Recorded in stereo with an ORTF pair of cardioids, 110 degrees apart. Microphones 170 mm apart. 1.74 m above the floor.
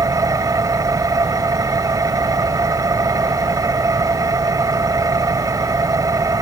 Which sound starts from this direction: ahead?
An engine running, at 0.0 s.